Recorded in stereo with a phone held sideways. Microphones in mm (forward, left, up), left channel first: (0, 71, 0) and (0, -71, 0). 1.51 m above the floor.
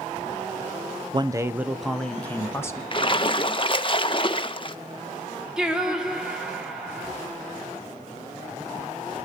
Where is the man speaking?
35° right (ahead or behind), 0.7 m; by 2.8 s 20° left (ahead or behind), 1.5 m.